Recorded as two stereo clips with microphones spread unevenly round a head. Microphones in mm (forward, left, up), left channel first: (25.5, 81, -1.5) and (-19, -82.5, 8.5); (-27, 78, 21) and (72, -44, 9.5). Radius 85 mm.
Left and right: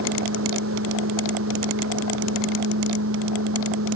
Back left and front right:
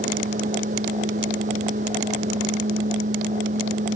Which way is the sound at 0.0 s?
100° right.